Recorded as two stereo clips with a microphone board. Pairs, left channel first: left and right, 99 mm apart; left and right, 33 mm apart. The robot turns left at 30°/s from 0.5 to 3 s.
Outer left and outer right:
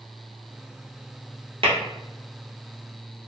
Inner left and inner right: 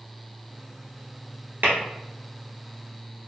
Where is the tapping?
70° right (ahead or behind), 1.2 m.